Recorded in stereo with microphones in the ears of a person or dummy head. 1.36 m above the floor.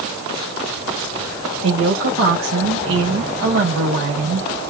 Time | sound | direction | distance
1.6 | a woman speaking | 65° right (ahead or behind) | 1.5 m